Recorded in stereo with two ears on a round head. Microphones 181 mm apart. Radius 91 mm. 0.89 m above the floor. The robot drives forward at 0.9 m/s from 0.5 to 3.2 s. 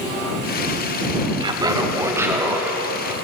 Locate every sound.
1.4 s laughter: 25° right (ahead or behind), 0.8 m; by 3.1 s 10° right (ahead or behind), 2.5 m